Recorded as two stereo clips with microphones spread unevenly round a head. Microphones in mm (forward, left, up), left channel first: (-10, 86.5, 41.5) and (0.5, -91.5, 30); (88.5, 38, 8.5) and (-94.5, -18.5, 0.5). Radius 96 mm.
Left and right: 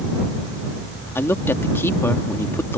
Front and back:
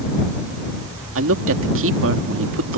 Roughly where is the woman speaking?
Behind.